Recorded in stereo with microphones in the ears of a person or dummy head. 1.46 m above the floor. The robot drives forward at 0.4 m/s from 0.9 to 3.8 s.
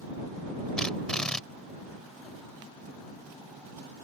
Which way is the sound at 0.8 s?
10° left (ahead or behind).